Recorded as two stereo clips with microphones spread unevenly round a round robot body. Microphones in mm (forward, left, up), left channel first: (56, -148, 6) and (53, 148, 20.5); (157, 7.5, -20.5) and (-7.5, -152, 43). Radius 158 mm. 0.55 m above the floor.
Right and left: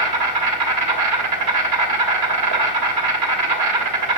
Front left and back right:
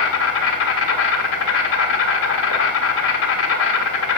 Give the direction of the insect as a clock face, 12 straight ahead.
10 o'clock.